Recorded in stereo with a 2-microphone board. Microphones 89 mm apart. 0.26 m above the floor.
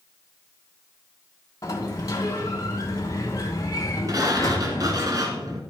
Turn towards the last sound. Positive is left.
turn(degrees=-45)  # may be behind; listen again after turning